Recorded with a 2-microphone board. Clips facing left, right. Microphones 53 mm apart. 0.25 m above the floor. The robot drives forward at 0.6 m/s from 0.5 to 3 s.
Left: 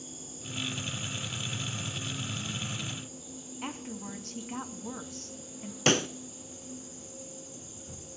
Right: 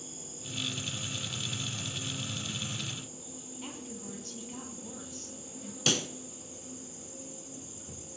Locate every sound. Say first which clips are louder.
0.0 s an insect: left 1 dB; 25° right (ahead or behind), 7 m; by 8.2 s 20° right (ahead or behind), 8.5 m
3.6 s a woman speaking: left 5 dB; 55° left (ahead or behind), 2.5 m
5.9 s a pop: left 6 dB; 40° left (ahead or behind), 0.7 m